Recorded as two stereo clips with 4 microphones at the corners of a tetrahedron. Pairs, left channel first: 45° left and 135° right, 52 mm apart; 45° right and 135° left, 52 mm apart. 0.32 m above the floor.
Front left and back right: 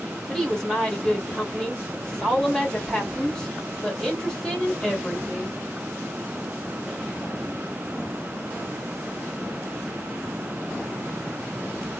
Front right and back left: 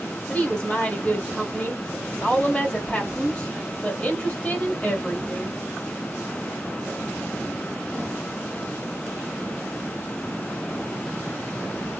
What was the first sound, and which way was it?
A woman speaking, 15° right.